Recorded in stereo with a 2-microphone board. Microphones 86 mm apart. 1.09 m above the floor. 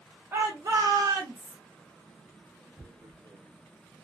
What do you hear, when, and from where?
0.3 s a shout: 30° right (ahead or behind), 0.7 m; by 1.6 s 55° right (ahead or behind), 1.3 m
2.8 s tearing paper: 60° right (ahead or behind), 1.1 m